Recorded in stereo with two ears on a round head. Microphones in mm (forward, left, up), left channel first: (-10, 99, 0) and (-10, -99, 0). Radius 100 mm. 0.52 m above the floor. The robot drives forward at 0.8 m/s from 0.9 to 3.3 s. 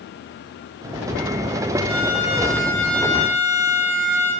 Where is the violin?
30° right (ahead or behind), 7 m; by 4.3 s 25° right (ahead or behind), 8 m.